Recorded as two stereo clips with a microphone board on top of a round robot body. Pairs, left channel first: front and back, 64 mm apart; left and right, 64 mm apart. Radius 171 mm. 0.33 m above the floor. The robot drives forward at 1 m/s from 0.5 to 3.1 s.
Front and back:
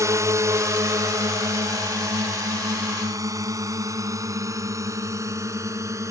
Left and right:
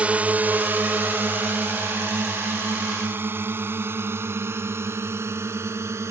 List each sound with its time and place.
0.0 s a drone: 155° right; by 6.1 s 140° right